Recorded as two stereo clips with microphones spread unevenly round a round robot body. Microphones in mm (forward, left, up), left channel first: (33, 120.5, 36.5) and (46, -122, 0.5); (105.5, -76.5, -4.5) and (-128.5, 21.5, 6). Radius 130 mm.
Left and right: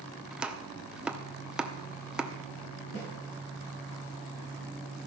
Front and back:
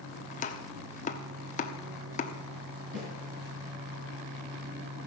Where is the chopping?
20° right, 1.0 m.